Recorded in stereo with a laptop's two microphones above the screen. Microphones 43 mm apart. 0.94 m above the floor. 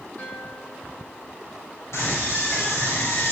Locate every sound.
0.2 s a guitar: 40° left (ahead or behind), 9.5 m
1.9 s a scream: 75° left (ahead or behind), 4 m